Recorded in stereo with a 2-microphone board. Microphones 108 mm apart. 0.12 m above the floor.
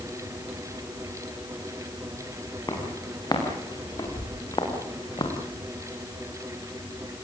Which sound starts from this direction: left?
Footsteps, at 2.7 s.